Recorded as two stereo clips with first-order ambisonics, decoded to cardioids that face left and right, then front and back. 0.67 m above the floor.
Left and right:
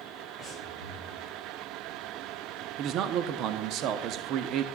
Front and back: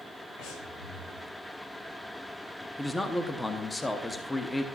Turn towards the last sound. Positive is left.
turn(degrees=-80)